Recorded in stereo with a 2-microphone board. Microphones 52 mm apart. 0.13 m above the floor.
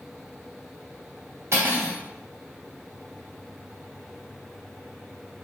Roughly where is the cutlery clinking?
Right.